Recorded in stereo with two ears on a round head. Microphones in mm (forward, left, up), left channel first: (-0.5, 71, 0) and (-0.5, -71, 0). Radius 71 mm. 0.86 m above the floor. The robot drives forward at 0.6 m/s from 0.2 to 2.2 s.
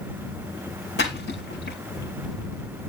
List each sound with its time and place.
1.0 s a splash: 85° left, 5.5 m; by 1.8 s 80° left, 5.5 m